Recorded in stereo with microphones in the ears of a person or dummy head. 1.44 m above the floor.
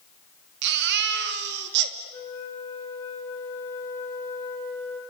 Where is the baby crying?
60° right (ahead or behind), 2.5 m.